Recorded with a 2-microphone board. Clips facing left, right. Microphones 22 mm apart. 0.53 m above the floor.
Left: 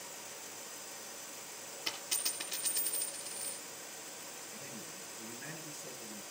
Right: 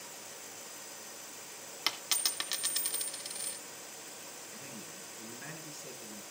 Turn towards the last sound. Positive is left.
turn(degrees=-40)  # may be behind; listen again after turning